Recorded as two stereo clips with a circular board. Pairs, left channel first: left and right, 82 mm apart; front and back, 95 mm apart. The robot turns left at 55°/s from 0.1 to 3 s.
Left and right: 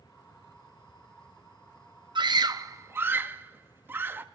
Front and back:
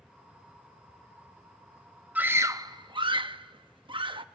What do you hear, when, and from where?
2.1 s a scream: 105° right, 0.9 m; by 4.2 s 150° right, 0.9 m